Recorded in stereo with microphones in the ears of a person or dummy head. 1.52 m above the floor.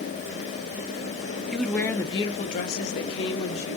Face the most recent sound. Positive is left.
turn(degrees=80)